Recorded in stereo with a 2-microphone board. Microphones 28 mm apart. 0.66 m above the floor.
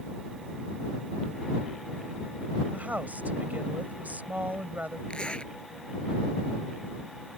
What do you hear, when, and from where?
2.7 s a woman speaking: 75° right (ahead or behind)
5.1 s a zipper: 40° left (ahead or behind)